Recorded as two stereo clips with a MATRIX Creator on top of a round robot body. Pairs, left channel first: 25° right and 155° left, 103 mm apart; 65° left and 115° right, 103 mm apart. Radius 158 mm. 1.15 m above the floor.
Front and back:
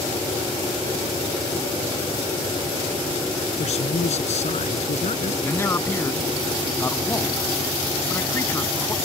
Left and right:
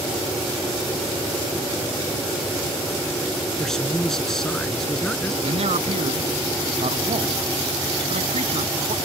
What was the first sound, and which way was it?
A man speaking, 20° right.